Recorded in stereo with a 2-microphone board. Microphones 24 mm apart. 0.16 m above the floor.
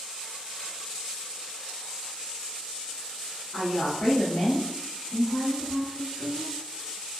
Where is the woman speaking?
15° left (ahead or behind), 1.5 m; by 6.5 s 20° left (ahead or behind), 1.3 m.